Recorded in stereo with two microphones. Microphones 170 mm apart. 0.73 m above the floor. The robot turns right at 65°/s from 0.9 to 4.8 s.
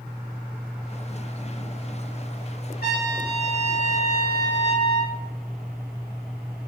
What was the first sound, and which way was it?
A trumpet, 115° left.